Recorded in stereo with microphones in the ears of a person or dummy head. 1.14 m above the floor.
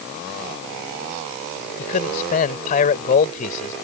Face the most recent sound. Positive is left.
turn(degrees=40)  # may be behind; listen again after turning